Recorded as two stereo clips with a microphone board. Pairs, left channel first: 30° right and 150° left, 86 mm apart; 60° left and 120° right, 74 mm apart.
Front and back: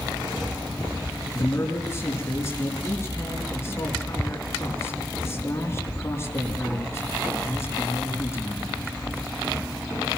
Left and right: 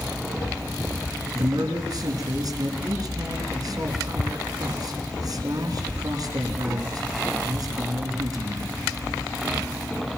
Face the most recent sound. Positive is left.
turn(degrees=-90)